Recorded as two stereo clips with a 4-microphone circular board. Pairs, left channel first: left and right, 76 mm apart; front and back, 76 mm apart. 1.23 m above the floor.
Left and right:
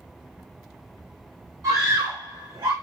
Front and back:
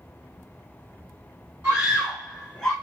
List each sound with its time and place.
1.6 s a scream: 115° right, 1.1 m; by 2.7 s 80° right, 0.8 m